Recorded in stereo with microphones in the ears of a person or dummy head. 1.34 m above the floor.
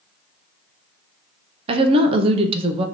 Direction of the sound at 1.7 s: 35° right (ahead or behind).